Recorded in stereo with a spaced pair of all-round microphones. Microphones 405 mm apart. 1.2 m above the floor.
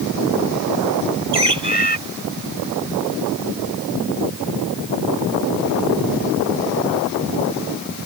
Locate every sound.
1.3 s a bird: 80° right